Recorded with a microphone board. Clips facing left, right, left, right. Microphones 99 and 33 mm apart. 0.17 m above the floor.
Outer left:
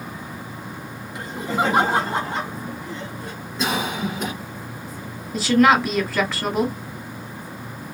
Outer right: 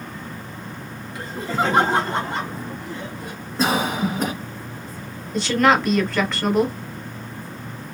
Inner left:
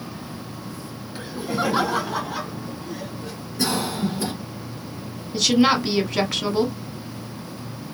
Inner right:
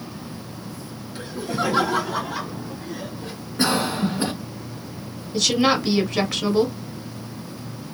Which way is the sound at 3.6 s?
35° right (ahead or behind).